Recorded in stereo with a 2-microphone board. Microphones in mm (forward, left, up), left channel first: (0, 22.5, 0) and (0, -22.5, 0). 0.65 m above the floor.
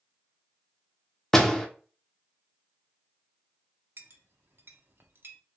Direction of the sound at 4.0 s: 55° right (ahead or behind).